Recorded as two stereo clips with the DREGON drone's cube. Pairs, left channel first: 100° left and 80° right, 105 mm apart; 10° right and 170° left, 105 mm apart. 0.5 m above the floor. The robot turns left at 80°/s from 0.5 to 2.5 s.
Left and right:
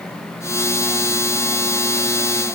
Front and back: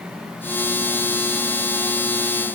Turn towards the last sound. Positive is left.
No sound to turn to.